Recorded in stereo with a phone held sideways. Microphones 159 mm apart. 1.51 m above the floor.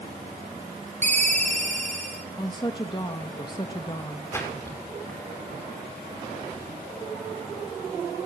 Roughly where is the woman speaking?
Left.